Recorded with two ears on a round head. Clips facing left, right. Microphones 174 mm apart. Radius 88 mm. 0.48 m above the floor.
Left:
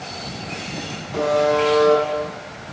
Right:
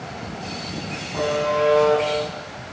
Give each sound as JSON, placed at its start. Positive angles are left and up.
{"t": 1.1, "sound": "a buzzer", "side_deg": 75, "distance_m": 5.0}